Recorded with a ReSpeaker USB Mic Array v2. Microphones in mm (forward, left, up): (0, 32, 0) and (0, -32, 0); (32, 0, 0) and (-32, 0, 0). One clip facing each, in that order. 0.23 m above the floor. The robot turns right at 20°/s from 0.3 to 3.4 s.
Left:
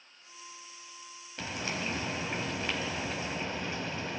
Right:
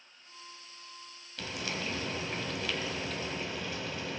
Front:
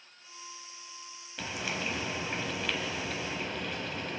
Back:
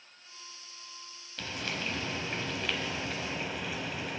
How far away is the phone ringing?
I don't hear a phone ringing.